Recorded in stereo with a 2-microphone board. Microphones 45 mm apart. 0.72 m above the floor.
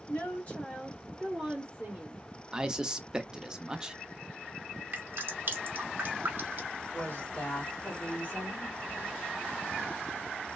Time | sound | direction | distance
0.1 | a woman speaking | 45° left (ahead or behind) | 1.4 m
2.5 | a man speaking | 15° right (ahead or behind) | 0.5 m
4.9 | dripping | 50° right (ahead or behind) | 0.8 m
6.9 | a woman speaking | 45° left (ahead or behind) | 2 m